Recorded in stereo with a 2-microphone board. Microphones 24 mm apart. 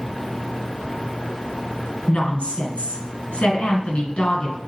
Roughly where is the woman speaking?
Left.